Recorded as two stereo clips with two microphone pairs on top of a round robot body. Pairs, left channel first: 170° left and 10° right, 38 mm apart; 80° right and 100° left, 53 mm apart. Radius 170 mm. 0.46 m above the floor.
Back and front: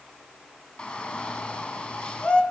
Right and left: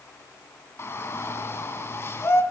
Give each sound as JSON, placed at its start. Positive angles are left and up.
{"t": 0.8, "sound": "a shout", "azimuth_deg": -125, "distance_m": 6.0}